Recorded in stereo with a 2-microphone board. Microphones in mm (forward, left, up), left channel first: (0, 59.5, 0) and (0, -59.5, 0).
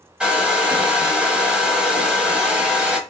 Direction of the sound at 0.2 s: 10° right (ahead or behind).